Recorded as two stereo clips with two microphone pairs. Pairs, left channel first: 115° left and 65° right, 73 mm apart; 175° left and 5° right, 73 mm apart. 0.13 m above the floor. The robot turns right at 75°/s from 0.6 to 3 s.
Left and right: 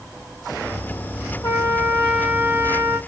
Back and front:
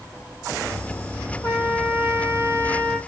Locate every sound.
1.4 s a trumpet: 145° left, 2 m; by 3.0 s 95° right, 2 m